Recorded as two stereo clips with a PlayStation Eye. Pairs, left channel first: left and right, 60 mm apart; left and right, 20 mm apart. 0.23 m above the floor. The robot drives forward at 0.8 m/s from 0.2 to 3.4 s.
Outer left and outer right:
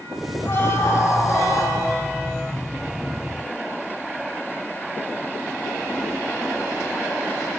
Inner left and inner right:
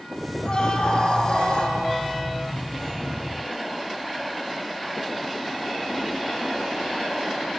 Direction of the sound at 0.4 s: 45° left (ahead or behind).